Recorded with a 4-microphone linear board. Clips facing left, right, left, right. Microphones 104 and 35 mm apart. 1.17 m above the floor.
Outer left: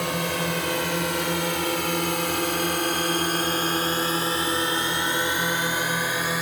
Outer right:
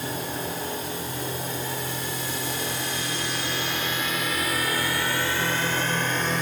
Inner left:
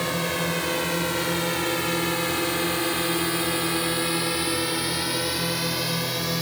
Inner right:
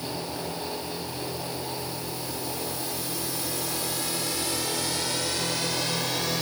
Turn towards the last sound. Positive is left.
turn(degrees=5)  # may be behind; listen again after turning